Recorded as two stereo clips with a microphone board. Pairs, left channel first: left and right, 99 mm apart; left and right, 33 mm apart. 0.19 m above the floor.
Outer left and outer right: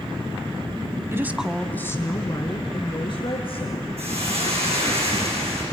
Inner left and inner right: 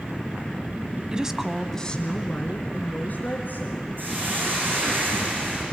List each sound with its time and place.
1.1 s a woman speaking: 25° right (ahead or behind), 1.1 m; by 5.0 s 60° left (ahead or behind), 5 m
4.0 s a hiss: 80° right, 8 m